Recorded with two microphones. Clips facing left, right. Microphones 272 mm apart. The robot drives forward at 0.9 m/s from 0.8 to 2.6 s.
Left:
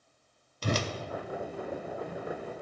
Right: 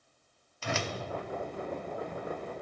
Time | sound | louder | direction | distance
0.6 | a whoosh | left 4 dB | 40° left (ahead or behind) | 0.5 m